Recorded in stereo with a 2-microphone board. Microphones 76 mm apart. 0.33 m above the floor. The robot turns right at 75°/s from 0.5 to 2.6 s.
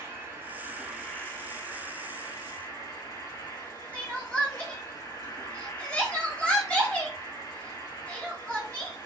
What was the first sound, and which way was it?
An insect, 35° right.